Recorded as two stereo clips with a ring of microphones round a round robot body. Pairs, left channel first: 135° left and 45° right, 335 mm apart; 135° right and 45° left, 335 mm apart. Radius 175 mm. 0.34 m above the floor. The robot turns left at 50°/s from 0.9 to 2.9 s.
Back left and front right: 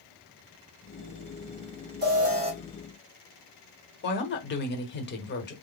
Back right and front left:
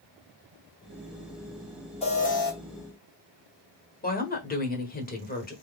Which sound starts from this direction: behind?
A woman speaking, at 4.0 s.